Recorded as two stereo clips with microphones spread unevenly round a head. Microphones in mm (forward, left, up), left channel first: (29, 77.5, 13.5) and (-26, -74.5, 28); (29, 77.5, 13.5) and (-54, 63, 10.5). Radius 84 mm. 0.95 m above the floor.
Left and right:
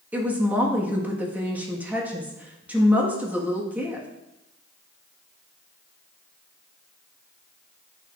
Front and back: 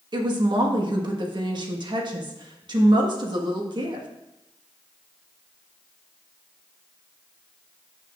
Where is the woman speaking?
170° left, 1.4 m.